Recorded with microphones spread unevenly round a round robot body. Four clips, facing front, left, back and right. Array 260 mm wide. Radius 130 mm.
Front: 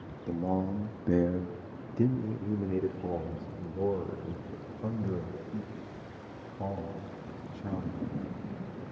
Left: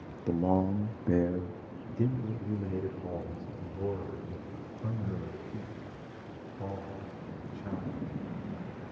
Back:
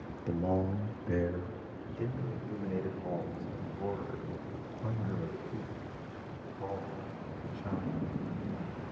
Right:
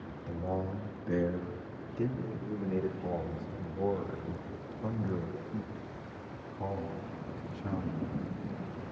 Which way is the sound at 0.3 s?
85° left.